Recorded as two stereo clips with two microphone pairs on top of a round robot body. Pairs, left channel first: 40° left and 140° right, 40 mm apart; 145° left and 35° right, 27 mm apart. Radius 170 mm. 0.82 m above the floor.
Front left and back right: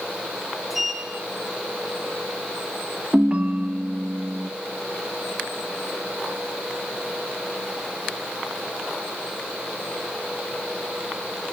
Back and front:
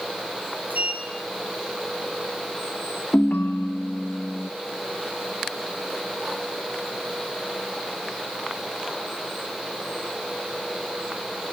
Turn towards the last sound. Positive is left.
turn(degrees=155)